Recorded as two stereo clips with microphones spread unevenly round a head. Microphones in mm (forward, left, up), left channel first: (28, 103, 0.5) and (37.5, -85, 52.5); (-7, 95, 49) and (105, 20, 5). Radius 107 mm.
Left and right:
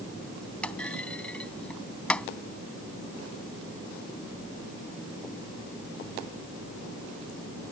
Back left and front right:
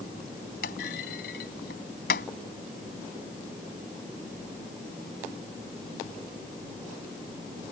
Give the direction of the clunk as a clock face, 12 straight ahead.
6 o'clock.